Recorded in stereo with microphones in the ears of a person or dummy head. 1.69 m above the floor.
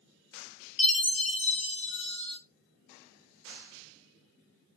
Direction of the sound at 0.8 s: 30° left (ahead or behind).